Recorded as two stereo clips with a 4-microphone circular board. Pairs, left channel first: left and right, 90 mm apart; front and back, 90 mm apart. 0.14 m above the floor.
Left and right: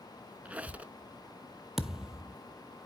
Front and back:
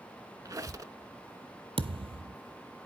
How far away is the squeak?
About 0.7 m.